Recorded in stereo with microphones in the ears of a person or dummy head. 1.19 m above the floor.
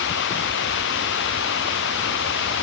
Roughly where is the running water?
Left.